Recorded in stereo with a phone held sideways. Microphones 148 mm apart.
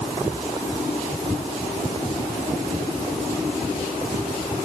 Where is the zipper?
I don't hear a zipper.